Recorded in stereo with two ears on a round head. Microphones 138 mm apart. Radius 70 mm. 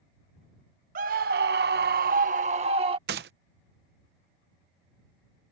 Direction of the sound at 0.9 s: 60° right (ahead or behind).